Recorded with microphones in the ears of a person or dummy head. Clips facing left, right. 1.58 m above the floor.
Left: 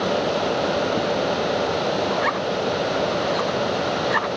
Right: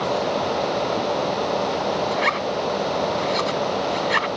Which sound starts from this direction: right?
A zipper, at 2.1 s.